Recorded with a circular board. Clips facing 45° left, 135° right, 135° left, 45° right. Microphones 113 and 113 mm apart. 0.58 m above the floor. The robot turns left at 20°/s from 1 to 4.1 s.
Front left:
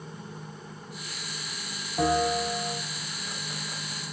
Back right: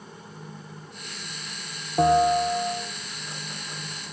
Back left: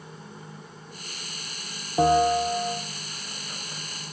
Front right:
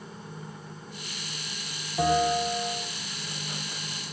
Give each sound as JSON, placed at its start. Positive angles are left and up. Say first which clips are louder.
{"t": 2.0, "sound": "a bell", "louder": "back right 6 dB, back left 4 dB", "azimuth_deg": 175, "distance_m": 0.5}